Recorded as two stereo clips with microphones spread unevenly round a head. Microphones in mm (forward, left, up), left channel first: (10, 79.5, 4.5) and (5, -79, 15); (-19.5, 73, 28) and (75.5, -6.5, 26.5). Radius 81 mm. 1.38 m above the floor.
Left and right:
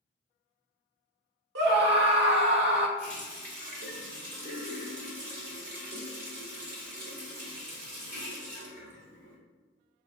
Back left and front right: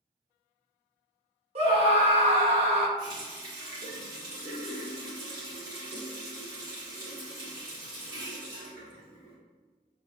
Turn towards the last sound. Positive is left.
turn(degrees=-65)